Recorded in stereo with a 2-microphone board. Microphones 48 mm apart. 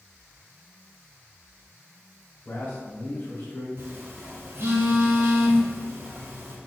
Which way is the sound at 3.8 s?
50° right (ahead or behind).